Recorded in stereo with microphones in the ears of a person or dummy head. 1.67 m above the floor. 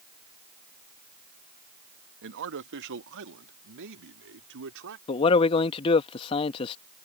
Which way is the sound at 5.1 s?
30° left (ahead or behind).